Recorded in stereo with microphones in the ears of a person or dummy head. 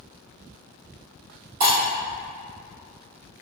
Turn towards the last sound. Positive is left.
turn(degrees=-45)  # may be behind; listen again after turning